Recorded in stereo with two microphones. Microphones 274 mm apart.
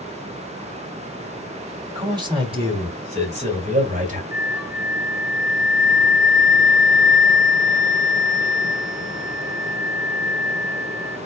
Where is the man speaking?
15° right (ahead or behind), 1.6 m; by 4.2 s 30° right (ahead or behind), 1.7 m.